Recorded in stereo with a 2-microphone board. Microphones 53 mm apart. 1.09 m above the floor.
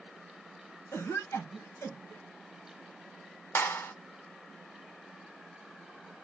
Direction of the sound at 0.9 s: 70° left (ahead or behind).